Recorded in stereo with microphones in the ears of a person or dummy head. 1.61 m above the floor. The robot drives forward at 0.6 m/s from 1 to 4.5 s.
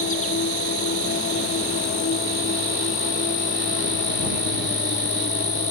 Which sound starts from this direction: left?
An insect, at 0.0 s.